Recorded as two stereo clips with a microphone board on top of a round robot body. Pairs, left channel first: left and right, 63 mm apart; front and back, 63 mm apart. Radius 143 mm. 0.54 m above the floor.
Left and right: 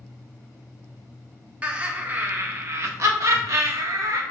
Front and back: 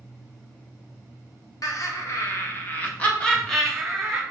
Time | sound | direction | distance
1.6 | laughter | 20° right | 1.8 m